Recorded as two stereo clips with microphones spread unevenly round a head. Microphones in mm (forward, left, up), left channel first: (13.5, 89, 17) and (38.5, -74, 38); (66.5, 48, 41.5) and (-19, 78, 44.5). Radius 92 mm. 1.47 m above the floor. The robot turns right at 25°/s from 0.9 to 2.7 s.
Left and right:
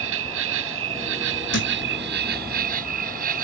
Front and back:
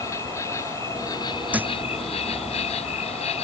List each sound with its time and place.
0.0 s an insect: 90° right; by 3.4 s 45° right
1.5 s a thud: 90° left; by 1.7 s 95° left